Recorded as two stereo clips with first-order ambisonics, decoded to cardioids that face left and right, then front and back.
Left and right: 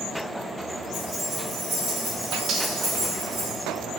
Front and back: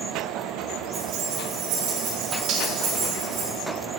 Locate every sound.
0.9 s keys jangling: 170° right, 3 m; by 3.5 s 140° right, 3.5 m
2.5 s cutlery clinking: 140° right, 0.8 m